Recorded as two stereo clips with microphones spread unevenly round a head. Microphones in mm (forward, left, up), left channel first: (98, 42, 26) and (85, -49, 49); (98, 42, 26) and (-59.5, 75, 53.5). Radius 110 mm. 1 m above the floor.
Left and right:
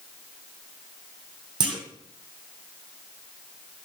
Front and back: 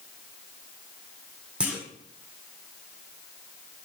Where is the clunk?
115° right, 0.8 m.